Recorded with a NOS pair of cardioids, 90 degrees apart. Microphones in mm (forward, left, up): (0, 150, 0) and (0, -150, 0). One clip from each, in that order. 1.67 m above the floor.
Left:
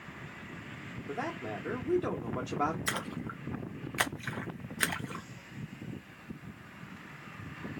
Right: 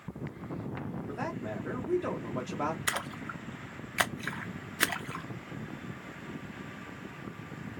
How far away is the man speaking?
About 1.2 m.